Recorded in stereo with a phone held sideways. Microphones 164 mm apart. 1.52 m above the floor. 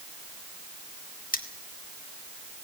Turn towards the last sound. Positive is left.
turn(degrees=60)  # may be behind; listen again after turning